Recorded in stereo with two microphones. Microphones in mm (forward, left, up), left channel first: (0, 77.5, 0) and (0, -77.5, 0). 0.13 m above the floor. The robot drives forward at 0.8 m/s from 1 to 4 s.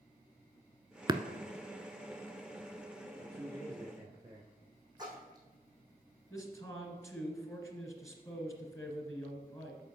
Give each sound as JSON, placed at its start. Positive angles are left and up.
{"t": 1.1, "sound": "tapping", "side_deg": -30, "distance_m": 0.5}
{"t": 3.2, "sound": "a man speaking", "side_deg": -25, "distance_m": 1.2}
{"t": 5.0, "sound": "a splash", "side_deg": -25, "distance_m": 2.5}
{"t": 6.3, "sound": "a man speaking", "side_deg": 20, "distance_m": 1.6}